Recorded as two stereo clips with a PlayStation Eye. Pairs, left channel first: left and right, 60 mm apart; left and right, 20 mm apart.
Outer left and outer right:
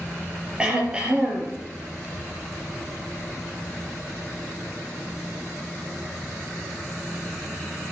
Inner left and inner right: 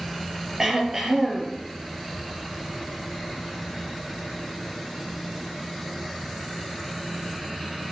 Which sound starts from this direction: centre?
Throat clearing, at 0.6 s.